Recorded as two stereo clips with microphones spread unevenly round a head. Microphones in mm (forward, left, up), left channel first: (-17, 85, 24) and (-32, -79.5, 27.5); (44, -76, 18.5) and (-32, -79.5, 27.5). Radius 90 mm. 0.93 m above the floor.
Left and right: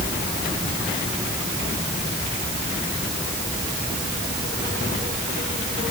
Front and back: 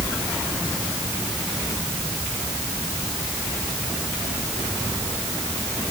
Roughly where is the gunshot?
I don't hear a gunshot.